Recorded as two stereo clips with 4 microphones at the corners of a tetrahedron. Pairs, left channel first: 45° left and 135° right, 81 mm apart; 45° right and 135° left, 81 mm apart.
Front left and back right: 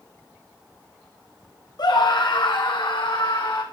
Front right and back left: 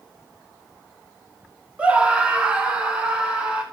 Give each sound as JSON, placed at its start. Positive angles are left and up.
{"t": 1.8, "sound": "a scream", "azimuth_deg": 60, "distance_m": 2.0}